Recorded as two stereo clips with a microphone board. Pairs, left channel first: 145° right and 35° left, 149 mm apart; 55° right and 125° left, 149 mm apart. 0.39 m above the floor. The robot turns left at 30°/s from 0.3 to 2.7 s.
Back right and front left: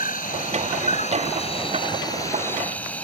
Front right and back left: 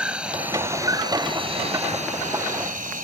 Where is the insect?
155° right; by 3.0 s 135° left.